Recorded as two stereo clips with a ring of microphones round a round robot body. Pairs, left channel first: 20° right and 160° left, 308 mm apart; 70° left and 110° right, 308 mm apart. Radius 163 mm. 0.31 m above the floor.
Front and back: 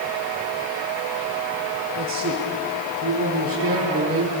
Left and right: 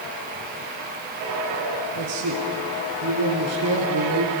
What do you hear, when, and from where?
1.9 s a man speaking: 150° right, 7.5 m; by 4.3 s 155° right, 5.5 m